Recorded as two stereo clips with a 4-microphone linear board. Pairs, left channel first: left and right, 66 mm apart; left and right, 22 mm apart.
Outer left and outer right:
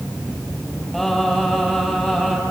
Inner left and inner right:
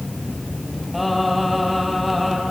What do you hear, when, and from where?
0.9 s singing: 5° left (ahead or behind), 5 m